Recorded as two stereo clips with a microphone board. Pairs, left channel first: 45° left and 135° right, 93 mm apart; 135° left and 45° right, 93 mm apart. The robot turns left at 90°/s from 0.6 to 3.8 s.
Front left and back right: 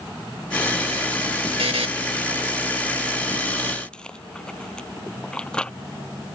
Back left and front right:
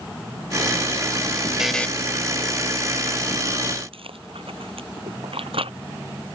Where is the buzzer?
125° right; by 1.9 s 150° right.